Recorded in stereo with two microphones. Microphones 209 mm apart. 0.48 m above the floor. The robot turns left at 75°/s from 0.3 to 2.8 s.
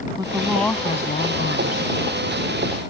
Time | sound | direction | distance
0.2 | a woman speaking | 160° right | ?